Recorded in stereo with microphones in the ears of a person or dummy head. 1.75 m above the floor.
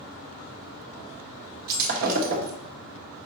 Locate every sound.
1.7 s breaking glass: 45° right (ahead or behind), 1.6 m